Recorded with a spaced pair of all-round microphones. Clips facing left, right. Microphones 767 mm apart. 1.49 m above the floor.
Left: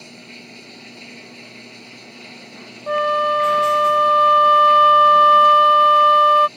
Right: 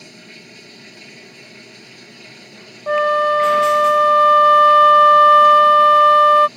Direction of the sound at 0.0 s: 50° right (ahead or behind).